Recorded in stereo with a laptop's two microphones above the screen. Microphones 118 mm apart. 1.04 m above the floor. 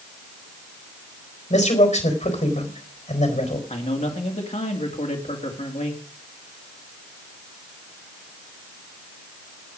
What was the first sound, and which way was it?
A man speaking, 80° left.